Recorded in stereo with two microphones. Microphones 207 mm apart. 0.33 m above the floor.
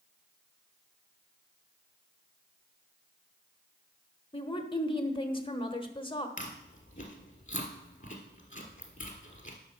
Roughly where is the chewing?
Left.